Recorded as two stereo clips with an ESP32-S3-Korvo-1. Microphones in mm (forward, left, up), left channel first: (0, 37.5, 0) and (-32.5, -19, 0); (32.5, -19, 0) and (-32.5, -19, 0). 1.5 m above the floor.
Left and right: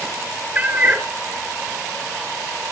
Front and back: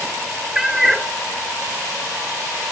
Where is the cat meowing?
105° right, 1.1 m.